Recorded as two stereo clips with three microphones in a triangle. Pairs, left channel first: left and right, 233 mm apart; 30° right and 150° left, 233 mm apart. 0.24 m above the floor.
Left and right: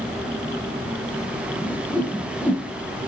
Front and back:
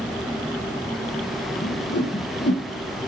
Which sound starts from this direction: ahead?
A whoosh, at 1.6 s.